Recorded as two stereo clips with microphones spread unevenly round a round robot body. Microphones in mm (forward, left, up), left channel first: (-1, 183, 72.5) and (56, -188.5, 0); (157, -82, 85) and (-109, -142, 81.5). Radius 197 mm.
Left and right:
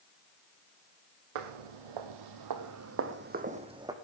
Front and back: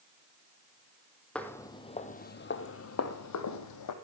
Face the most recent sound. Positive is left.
turn(degrees=0)